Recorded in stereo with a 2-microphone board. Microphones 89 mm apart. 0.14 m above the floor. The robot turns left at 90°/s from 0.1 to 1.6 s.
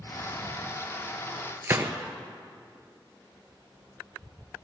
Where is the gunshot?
30° right (ahead or behind), 0.9 m.